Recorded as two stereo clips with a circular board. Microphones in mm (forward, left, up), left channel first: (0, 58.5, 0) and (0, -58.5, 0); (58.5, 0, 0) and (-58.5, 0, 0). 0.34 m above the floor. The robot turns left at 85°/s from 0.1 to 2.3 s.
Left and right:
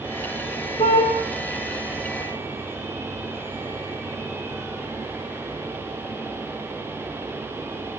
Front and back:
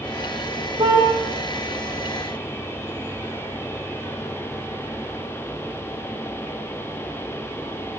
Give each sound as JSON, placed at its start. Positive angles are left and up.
{"t": 0.8, "sound": "a car horn", "azimuth_deg": 135, "distance_m": 8.0}